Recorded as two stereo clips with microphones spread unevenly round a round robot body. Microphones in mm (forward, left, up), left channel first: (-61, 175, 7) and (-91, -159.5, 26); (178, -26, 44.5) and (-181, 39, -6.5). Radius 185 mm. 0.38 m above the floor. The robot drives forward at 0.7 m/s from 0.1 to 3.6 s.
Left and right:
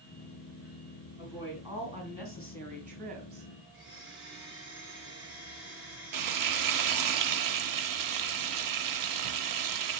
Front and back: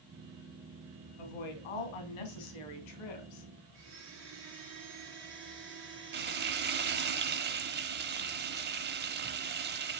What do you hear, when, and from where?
1.2 s a woman speaking: 15° right, 3.5 m; by 3.5 s 30° right, 2 m
3.7 s a blender: 135° right, 5.5 m
6.1 s frying: 130° right, 0.8 m